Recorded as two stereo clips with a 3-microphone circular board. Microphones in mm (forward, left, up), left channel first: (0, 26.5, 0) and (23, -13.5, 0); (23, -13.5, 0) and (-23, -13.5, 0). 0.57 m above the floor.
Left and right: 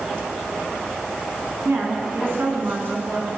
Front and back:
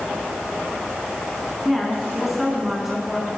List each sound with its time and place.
1.6 s a woman speaking: 95° right, 6 m